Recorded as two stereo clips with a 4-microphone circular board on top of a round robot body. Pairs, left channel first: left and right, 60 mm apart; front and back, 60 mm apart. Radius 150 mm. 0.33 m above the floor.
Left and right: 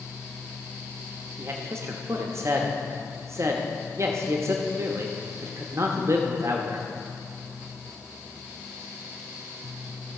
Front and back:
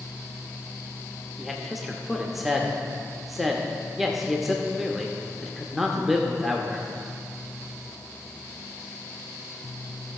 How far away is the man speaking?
About 1.1 m.